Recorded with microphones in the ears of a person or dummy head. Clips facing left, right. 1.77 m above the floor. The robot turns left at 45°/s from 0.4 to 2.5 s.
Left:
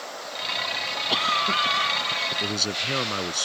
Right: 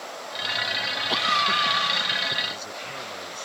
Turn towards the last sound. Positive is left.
turn(degrees=85)